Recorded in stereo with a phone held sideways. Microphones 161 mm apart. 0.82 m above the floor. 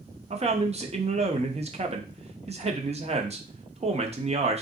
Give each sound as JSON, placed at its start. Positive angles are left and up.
{"t": 0.3, "sound": "a man speaking", "side_deg": -40, "distance_m": 0.6}